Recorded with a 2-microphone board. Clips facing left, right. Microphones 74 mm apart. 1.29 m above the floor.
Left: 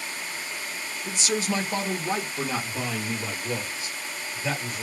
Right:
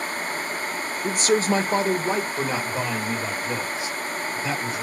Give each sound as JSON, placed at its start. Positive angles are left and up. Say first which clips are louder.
{"t": 1.0, "sound": "a man speaking", "louder": "right 7 dB", "side_deg": -55, "distance_m": 0.6}